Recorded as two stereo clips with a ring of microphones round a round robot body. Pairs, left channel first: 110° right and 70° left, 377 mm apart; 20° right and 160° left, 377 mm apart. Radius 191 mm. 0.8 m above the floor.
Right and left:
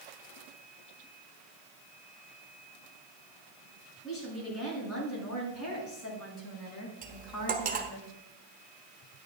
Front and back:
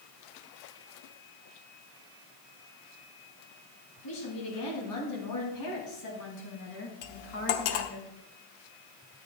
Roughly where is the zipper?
No zipper in this recording.